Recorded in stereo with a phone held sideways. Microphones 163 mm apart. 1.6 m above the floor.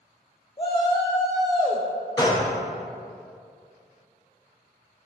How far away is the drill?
I don't hear a drill.